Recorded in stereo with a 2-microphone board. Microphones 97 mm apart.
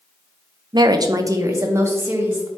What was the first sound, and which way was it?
A woman speaking, 45° right (ahead or behind).